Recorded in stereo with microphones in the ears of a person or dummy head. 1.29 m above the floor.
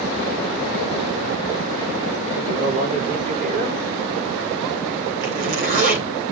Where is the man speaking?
45° right (ahead or behind), 4.5 m.